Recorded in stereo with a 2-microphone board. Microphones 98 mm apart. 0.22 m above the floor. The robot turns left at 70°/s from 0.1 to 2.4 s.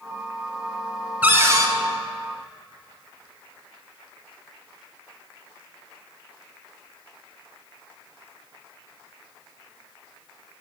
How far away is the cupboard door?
About 0.8 m.